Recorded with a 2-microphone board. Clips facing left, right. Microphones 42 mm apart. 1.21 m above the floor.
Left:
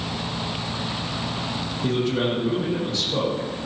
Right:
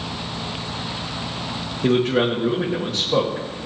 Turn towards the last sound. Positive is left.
turn(degrees=-80)